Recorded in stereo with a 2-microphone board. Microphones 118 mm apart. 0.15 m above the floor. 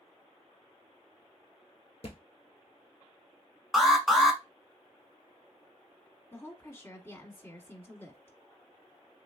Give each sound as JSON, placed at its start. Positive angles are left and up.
{"t": 2.0, "sound": "a thud", "side_deg": 55, "distance_m": 1.1}
{"t": 3.7, "sound": "an alarm", "side_deg": -5, "distance_m": 0.9}
{"t": 6.3, "sound": "a woman speaking", "side_deg": 20, "distance_m": 1.0}